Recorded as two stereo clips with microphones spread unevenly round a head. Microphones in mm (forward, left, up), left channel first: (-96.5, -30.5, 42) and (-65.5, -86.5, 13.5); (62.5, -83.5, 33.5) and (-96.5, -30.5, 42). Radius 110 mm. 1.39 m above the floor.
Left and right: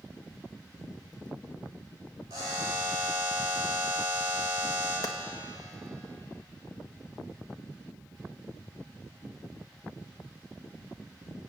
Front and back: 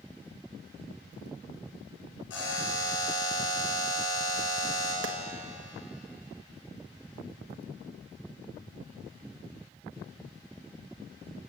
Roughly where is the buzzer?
Ahead.